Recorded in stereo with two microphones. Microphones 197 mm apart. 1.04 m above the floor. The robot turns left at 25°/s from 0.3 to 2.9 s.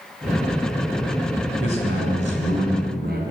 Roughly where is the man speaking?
Right.